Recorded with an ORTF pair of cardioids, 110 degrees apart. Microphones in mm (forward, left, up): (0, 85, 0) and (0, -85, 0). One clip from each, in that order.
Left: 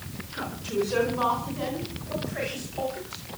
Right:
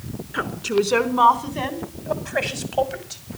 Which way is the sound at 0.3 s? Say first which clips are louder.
Right 7 dB; 65° right.